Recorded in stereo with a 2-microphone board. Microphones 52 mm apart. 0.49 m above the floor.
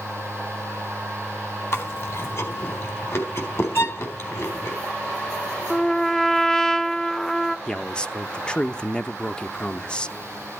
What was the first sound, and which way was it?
Chewing, 55° left (ahead or behind).